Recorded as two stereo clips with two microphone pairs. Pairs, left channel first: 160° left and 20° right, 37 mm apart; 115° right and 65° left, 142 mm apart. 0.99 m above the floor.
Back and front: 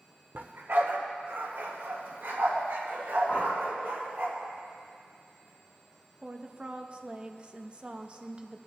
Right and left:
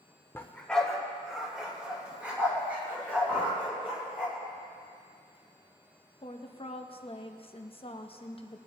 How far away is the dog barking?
About 0.9 m.